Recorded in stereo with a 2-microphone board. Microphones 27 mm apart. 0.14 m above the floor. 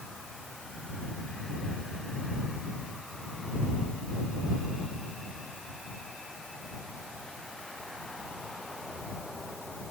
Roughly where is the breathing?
No breathing in this recording.